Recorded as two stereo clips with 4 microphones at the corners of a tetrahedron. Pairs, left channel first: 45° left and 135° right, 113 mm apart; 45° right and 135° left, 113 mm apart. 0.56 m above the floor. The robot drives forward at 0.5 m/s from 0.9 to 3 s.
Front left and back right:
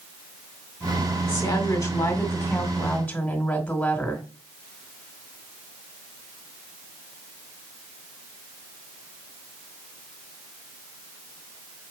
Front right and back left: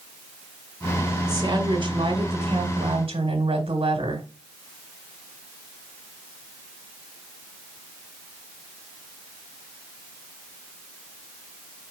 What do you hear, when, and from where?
1.3 s a woman speaking: 90° left, 1.8 m; by 4.3 s 120° left, 2 m